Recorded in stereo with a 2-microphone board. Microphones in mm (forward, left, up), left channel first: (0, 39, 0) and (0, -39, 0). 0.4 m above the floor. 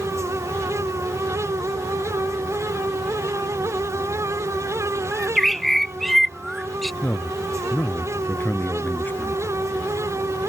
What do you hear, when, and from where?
5.1 s a bird: 5° left (ahead or behind)
7.0 s a man speaking: 25° left (ahead or behind)